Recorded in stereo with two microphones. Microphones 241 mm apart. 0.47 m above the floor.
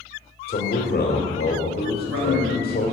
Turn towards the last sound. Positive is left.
turn(degrees=-65)  # may be behind; listen again after turning